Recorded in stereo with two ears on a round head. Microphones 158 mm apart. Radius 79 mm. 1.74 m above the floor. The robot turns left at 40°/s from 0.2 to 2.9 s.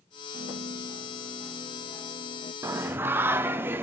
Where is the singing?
15° right (ahead or behind), 0.6 m; by 3.8 s 10° right (ahead or behind), 0.6 m.